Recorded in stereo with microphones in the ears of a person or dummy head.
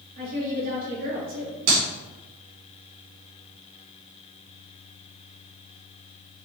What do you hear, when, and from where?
0.2 s a woman speaking: 50° right (ahead or behind), 3 m
1.7 s a clap: 65° right (ahead or behind), 3 m